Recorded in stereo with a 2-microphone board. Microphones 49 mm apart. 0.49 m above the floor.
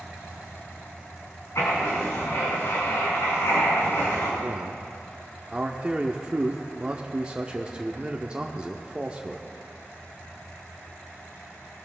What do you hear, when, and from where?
1.6 s writing: 80° left, 4.5 m
4.4 s a man speaking: 20° right (ahead or behind), 0.7 m